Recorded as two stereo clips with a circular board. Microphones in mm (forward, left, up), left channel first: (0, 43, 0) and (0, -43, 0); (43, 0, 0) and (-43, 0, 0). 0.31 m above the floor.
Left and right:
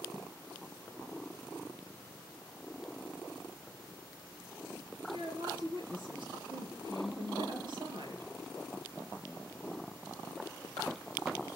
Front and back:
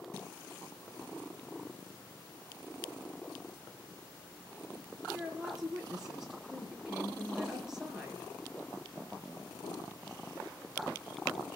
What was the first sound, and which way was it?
A woman speaking, 100° right.